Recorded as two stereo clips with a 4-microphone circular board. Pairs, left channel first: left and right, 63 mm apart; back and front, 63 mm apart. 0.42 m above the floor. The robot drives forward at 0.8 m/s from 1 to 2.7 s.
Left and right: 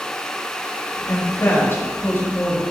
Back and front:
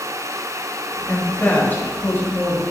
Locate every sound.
1.1 s a woman speaking: 115° left, 2.5 m; by 2.6 s 140° left, 3 m